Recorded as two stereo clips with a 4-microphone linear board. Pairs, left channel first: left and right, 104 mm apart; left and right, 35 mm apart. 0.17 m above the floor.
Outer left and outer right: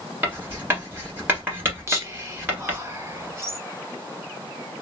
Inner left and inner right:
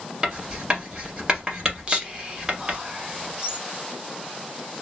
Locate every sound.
0.2 s writing: 20° right (ahead or behind), 1.4 m
1.9 s whispering: 25° right (ahead or behind), 1.1 m